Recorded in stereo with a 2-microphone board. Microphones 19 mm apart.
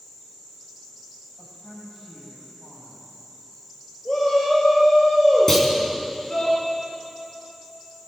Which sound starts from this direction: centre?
A clunk, at 5.5 s.